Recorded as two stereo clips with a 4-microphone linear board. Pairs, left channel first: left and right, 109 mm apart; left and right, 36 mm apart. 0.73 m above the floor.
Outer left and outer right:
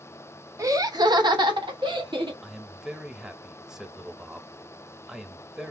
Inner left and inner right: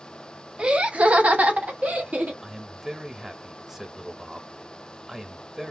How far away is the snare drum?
No snare drum in this recording.